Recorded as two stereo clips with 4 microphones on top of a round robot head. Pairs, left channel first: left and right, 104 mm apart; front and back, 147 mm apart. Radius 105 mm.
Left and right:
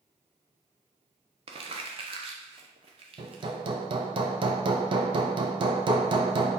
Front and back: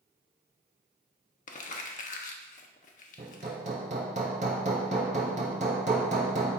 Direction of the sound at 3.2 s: 130° right.